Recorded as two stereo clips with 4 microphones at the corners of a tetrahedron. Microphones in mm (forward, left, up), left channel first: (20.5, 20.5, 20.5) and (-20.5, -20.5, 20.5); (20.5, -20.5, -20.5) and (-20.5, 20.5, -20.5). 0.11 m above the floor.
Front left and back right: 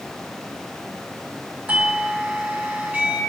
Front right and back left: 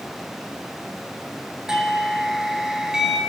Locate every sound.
1.7 s a doorbell: 155° right, 2.5 m